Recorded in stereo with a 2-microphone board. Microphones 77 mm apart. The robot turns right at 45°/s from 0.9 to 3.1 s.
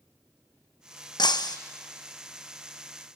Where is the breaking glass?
80° left, 0.8 m; by 1.6 s 65° left (ahead or behind), 0.8 m.